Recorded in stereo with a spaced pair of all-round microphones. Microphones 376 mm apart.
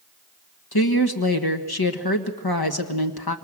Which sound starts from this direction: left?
A woman speaking, at 0.7 s.